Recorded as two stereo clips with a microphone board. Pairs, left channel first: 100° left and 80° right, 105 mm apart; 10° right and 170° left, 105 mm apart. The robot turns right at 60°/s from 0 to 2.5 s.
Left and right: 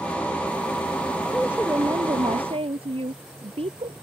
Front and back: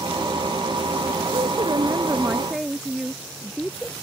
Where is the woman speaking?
170° right; by 3.9 s 100° right.